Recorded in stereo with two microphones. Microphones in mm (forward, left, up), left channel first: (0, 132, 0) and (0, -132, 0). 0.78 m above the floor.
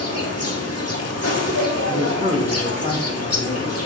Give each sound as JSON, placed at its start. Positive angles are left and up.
{"t": 0.0, "sound": "an insect", "side_deg": 65, "distance_m": 1.5}
{"t": 1.9, "sound": "a man speaking", "side_deg": -25, "distance_m": 2.0}